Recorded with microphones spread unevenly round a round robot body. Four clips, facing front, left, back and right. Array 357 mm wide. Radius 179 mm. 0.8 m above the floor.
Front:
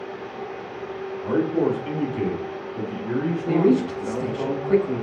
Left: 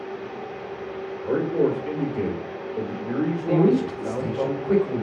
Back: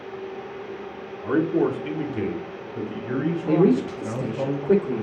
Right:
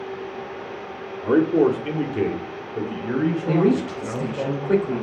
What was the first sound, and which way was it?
A man speaking, 105° right.